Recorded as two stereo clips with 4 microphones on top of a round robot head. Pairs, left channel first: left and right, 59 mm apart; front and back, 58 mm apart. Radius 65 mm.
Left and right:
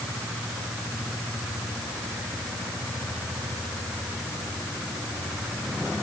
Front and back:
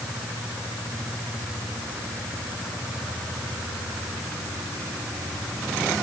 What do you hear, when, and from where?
Only background noise.